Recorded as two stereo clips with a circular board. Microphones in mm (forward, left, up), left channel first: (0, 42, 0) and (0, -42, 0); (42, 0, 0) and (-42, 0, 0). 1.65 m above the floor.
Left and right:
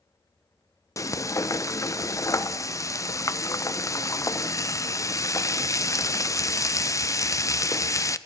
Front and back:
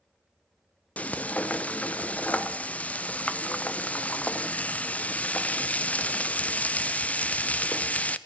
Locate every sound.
1.0 s frying: 65° left, 0.7 m